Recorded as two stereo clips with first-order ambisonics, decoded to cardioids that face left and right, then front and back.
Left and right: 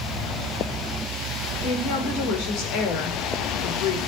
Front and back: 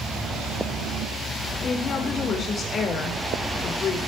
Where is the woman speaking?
65° left, 4 m.